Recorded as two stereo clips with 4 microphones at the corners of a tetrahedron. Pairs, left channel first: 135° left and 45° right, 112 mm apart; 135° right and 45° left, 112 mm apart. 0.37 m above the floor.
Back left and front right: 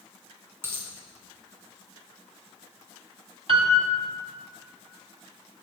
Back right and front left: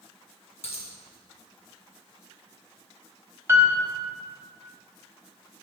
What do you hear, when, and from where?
0.6 s a dropped coin: 115° right, 1.6 m
3.5 s a piano: 20° right, 1.1 m